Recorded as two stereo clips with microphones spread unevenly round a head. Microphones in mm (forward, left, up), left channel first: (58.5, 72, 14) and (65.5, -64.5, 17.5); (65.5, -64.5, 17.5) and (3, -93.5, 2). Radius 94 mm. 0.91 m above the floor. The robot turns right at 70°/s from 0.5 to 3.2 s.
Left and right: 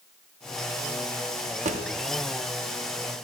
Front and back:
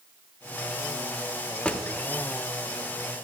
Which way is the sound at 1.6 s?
50° right.